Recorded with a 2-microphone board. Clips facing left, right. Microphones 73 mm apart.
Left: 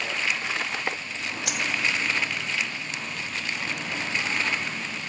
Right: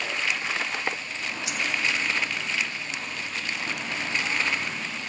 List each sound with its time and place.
1.5 s a dropped coin: 70° left (ahead or behind), 0.6 m